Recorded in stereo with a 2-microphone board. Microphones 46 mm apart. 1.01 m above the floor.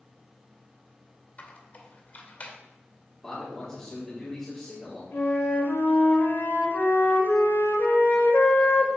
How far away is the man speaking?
About 3 m.